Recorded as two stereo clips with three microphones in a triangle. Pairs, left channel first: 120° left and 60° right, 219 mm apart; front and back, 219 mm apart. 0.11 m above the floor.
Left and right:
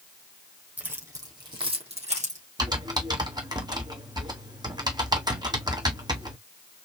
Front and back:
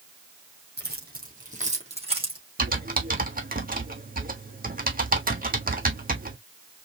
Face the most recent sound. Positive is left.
turn(degrees=-130)